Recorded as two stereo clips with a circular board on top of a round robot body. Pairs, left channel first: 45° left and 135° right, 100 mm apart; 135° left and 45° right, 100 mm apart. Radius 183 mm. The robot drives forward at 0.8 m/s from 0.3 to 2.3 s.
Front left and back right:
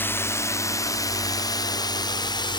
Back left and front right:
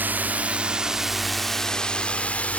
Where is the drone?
5° left; by 2.6 s 60° left.